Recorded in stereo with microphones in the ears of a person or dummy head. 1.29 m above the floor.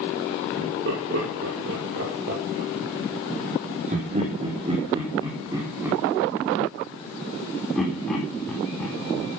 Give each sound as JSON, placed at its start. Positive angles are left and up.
{"t": 0.6, "sound": "laughter", "side_deg": -65, "distance_m": 4.5}